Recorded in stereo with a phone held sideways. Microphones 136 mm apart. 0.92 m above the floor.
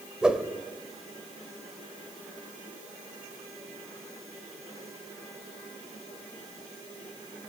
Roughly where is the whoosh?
Centre.